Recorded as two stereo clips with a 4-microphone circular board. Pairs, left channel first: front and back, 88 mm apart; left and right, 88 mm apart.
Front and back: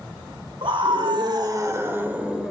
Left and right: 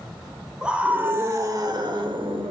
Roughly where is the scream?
Behind.